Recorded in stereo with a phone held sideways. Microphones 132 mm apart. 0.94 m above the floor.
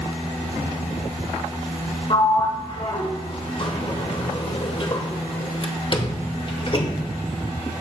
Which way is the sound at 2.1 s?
40° left (ahead or behind).